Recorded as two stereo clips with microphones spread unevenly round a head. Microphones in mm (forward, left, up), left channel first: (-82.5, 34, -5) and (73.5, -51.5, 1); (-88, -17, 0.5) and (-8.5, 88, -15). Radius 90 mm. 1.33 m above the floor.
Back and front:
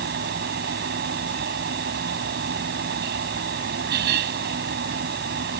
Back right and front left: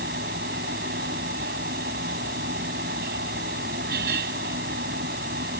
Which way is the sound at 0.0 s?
10° left.